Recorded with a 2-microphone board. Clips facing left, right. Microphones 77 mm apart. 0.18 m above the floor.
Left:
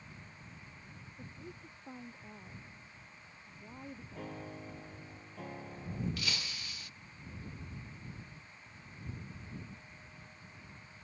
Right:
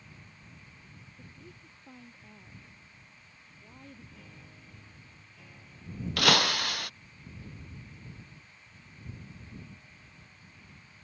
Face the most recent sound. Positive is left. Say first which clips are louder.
# right 16 dB
turn(degrees=-75)  # may be behind; listen again after turning